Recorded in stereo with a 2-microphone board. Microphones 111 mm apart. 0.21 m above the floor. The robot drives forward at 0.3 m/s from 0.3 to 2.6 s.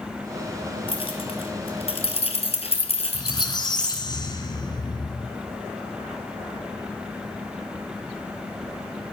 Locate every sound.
0.9 s keys jangling: 55° left (ahead or behind), 3 m; by 4.0 s 60° left (ahead or behind), 2.5 m
3.1 s a squeak: 40° left (ahead or behind), 2 m